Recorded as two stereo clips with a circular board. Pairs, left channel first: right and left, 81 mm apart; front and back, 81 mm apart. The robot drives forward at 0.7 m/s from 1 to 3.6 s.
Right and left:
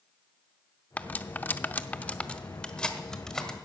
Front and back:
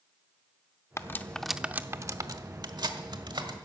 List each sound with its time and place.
1.0 s cutlery clinking: 30° right, 0.6 m; by 3.6 s 170° right, 1.6 m